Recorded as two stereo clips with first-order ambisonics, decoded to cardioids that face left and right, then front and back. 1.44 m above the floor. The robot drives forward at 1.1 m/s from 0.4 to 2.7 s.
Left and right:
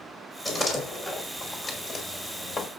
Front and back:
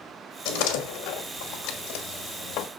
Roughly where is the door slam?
Ahead.